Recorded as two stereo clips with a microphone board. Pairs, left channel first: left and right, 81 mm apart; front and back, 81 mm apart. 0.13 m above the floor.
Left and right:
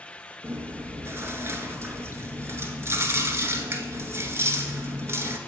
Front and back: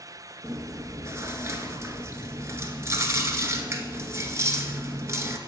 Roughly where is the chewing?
Behind right.